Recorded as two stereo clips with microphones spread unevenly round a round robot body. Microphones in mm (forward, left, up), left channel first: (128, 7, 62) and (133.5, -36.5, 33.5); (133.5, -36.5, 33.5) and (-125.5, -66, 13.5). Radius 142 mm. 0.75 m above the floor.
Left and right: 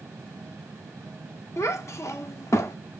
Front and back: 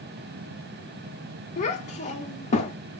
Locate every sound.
1.6 s a child speaking: 75° left, 0.5 m